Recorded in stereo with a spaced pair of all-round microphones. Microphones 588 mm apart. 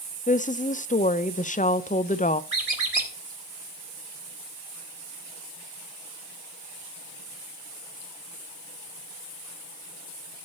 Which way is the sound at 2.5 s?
70° right (ahead or behind).